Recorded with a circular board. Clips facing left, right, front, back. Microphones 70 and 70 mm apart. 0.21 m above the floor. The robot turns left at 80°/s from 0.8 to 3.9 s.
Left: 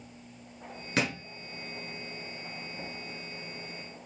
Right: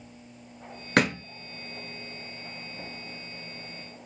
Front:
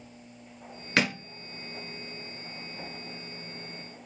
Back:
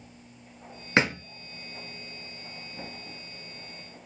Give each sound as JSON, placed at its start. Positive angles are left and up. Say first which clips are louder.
{"t": 1.0, "sound": "a thud", "louder": "right 7 dB, back 3 dB", "azimuth_deg": -115, "distance_m": 0.9}